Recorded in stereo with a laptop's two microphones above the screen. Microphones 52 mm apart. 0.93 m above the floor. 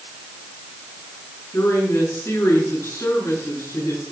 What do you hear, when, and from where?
1.5 s a woman speaking: 55° left (ahead or behind), 8.5 m